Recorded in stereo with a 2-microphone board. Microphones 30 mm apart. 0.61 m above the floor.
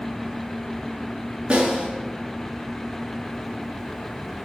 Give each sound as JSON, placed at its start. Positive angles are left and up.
{"t": 1.5, "sound": "a snare drum", "side_deg": -35, "distance_m": 6.0}